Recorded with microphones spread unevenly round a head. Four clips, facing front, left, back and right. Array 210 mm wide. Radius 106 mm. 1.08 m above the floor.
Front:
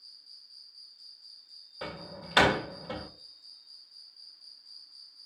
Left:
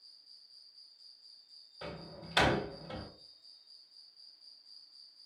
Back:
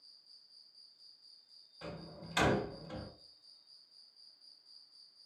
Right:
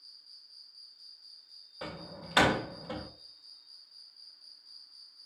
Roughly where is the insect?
Ahead right.